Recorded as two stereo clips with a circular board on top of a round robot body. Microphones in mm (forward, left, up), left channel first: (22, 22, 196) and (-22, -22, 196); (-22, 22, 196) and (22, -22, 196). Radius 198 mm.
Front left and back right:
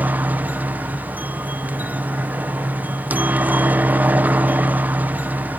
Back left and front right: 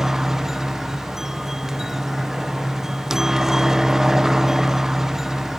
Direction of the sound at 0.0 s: 120° right.